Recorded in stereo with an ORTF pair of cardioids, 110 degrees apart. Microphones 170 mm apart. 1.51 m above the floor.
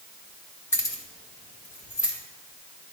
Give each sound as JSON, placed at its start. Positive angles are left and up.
{"t": 0.7, "sound": "keys jangling", "azimuth_deg": 15, "distance_m": 1.4}